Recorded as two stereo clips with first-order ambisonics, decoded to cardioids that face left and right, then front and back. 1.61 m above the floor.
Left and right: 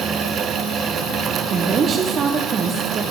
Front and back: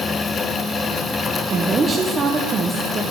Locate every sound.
1.5 s a woman speaking: 125° right, 0.6 m